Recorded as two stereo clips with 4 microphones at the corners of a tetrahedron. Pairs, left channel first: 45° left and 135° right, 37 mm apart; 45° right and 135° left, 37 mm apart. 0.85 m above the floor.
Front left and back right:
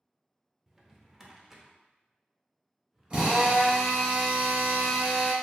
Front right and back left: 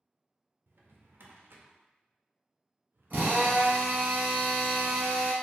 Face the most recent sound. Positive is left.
turn(degrees=170)